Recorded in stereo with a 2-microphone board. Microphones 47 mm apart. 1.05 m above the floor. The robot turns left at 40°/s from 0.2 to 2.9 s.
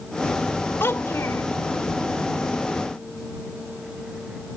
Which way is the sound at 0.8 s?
55° left (ahead or behind).